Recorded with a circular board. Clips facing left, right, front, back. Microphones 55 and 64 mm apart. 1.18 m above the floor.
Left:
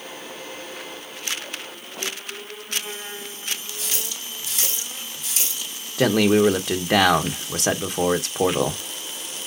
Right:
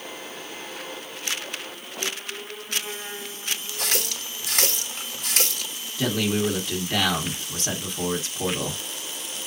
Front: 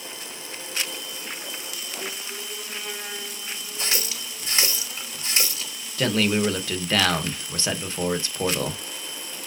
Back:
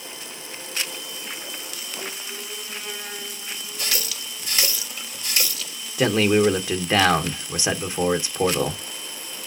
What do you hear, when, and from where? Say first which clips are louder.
3.8 s a running tap: right 4 dB, front 1 dB; 65° right, 1.5 m
6.0 s a man speaking: left 8 dB, back 4 dB; 105° left, 1.1 m